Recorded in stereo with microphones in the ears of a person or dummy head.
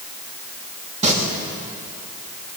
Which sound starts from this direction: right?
Singing, at 1.0 s.